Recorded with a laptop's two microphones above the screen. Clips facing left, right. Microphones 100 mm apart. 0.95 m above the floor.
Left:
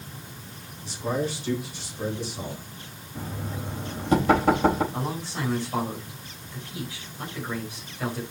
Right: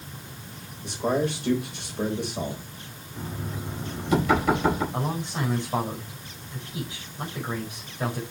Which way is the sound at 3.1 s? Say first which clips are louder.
Even; 35° left (ahead or behind).